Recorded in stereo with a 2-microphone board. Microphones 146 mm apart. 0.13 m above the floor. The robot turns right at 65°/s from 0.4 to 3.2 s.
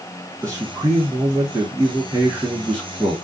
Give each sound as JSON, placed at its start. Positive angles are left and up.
{"t": 0.4, "sound": "a man speaking", "azimuth_deg": -140, "distance_m": 1.4}